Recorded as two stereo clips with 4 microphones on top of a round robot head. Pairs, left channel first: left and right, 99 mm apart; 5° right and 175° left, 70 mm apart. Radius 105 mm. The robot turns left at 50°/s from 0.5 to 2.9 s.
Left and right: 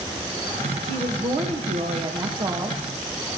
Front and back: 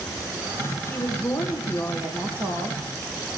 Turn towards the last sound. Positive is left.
turn(degrees=-160)